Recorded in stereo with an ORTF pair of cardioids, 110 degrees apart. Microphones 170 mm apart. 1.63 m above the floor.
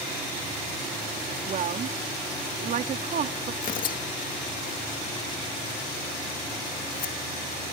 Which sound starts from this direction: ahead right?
A woman speaking, at 1.5 s.